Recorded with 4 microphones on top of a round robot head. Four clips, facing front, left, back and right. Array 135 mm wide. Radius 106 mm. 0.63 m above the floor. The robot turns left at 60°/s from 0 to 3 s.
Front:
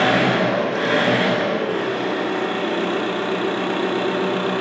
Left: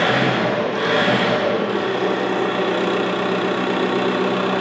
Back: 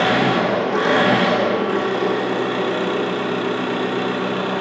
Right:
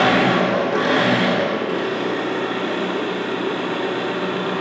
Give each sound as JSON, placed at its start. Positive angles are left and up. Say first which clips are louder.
{"t": 0.0, "sound": "an engine running", "louder": "right 2 dB, even", "azimuth_deg": -100, "distance_m": 1.1}